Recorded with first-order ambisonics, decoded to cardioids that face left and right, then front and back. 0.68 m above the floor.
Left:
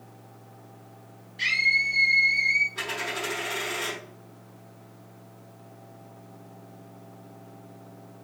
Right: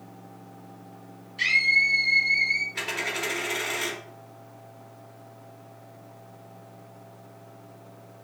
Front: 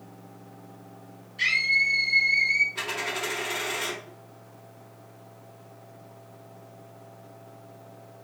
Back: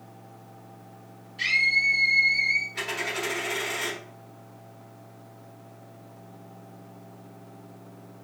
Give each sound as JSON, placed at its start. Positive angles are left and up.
{"t": 1.4, "sound": "a scream", "azimuth_deg": -95, "distance_m": 1.7}
{"t": 2.8, "sound": "a dropped coin", "azimuth_deg": -105, "distance_m": 1.3}